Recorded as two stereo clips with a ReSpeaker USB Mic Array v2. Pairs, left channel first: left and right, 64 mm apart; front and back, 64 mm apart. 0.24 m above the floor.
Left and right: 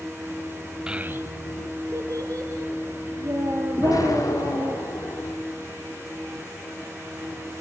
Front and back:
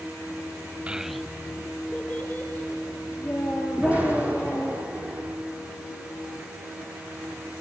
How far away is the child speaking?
About 0.7 m.